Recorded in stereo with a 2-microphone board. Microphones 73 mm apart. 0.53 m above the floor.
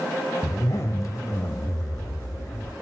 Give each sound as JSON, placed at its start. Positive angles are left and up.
{"t": 0.4, "sound": "a zipper", "side_deg": 50, "distance_m": 1.2}